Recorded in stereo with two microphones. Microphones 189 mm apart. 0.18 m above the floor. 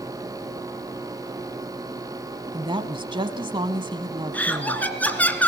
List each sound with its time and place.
2.5 s a woman speaking: 25° right (ahead or behind), 1.4 m
4.3 s laughter: 10° left (ahead or behind), 1.9 m